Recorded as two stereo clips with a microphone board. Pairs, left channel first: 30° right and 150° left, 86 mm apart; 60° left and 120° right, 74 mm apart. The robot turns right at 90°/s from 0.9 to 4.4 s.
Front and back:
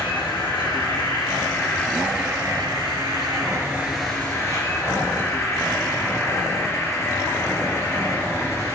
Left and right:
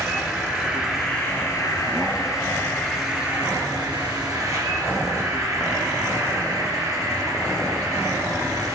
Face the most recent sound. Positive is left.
turn(degrees=-85)